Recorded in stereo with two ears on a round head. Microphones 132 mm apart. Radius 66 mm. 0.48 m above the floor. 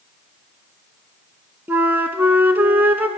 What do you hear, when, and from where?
1.7 s a flute: 10° right (ahead or behind), 0.7 m